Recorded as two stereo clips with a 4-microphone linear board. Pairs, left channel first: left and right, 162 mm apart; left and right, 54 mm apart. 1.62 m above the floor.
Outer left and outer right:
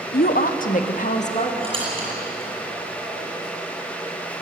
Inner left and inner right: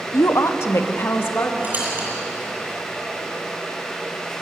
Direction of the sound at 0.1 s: 70° left (ahead or behind).